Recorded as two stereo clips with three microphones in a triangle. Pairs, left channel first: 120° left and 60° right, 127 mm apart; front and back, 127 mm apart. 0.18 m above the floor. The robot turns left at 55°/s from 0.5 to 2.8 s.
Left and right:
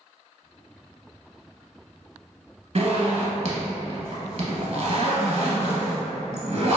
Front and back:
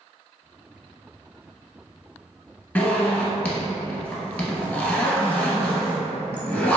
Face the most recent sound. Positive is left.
turn(degrees=-75)